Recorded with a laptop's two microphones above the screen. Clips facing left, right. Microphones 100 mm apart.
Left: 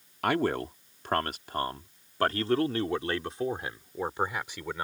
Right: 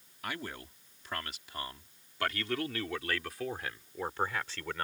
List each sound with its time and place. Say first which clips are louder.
0.2 s a man speaking: left 14 dB; 70° left (ahead or behind); by 4.8 s 15° left (ahead or behind)